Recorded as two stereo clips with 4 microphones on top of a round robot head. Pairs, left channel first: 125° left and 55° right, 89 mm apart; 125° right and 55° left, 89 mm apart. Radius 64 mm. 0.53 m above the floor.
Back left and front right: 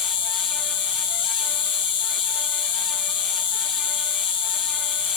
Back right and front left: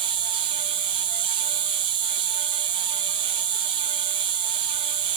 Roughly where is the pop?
No pop in this recording.